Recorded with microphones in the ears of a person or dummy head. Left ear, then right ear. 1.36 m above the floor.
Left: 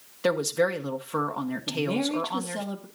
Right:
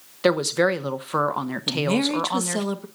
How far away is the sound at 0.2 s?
About 0.9 m.